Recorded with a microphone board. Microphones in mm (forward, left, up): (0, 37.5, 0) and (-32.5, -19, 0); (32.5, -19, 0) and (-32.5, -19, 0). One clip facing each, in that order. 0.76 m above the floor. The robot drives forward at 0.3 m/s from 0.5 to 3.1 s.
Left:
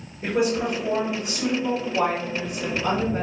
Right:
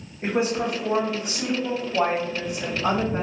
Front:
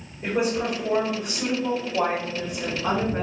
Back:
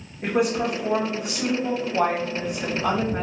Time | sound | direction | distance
0.2 | a woman speaking | 165° right | 1.5 m